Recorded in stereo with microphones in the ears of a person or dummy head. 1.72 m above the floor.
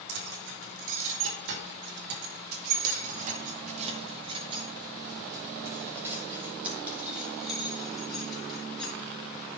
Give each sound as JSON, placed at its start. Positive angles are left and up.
{"t": 0.1, "sound": "keys jangling", "side_deg": -70, "distance_m": 2.5}